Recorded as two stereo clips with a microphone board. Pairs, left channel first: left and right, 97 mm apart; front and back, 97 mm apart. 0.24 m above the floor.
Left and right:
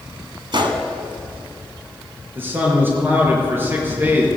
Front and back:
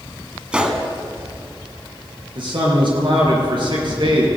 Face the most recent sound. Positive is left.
turn(degrees=-155)